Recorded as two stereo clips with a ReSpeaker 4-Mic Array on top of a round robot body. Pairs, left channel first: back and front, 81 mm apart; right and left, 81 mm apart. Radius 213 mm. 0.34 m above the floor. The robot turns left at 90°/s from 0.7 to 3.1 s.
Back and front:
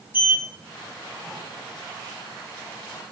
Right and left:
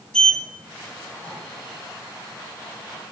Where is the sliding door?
20° right, 0.8 m; by 1.4 s 80° right, 0.8 m.